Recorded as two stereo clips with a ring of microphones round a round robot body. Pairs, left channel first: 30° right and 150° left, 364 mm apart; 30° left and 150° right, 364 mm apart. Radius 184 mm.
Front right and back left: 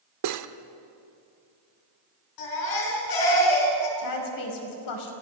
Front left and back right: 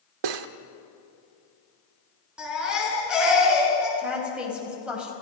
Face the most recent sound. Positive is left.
turn(degrees=-60)